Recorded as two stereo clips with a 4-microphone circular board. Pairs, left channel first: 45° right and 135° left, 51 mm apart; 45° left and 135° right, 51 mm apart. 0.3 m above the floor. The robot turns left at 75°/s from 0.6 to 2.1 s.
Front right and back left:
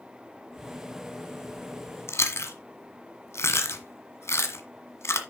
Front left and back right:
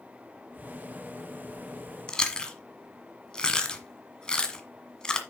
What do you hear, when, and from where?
2.1 s chewing: 30° right, 1.4 m